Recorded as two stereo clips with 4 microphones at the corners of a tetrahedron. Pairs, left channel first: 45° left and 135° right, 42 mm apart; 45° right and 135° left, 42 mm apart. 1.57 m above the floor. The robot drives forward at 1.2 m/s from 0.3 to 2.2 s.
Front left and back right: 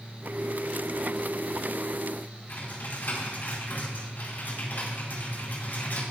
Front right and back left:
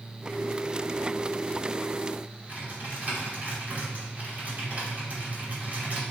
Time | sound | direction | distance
2.5 | typing on a keyboard | 85° left | 4 m